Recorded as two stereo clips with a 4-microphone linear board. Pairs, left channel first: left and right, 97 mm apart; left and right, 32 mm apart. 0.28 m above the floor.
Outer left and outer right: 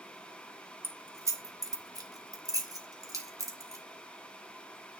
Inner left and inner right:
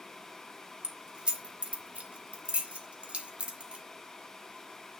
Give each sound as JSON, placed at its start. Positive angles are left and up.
{"t": 0.8, "sound": "keys jangling", "side_deg": -25, "distance_m": 0.9}